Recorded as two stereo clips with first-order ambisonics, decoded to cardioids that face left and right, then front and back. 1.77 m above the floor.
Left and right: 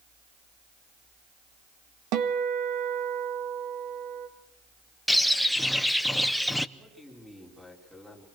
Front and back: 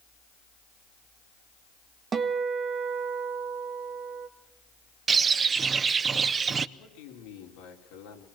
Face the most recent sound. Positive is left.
turn(degrees=-5)